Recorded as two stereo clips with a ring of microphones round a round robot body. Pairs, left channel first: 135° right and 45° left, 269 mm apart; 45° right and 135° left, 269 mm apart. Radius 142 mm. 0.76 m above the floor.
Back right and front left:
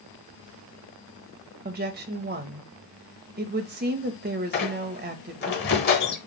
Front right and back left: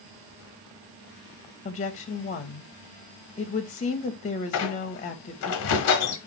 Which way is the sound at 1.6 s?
5° left.